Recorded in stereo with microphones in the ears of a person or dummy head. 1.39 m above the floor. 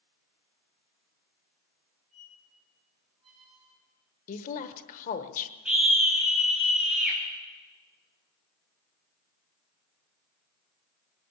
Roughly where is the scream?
Centre.